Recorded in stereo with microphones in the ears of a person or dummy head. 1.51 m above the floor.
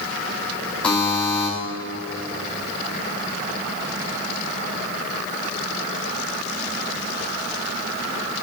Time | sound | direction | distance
0.8 | a buzzer | 10° left (ahead or behind) | 4 m